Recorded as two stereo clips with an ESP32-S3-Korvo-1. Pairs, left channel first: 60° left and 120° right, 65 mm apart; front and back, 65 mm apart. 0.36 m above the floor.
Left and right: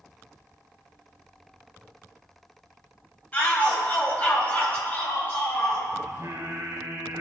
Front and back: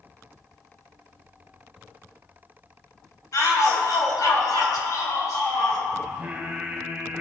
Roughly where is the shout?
Ahead.